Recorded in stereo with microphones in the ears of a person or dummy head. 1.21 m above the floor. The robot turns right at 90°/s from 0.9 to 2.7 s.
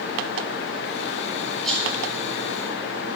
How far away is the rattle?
About 3.5 m.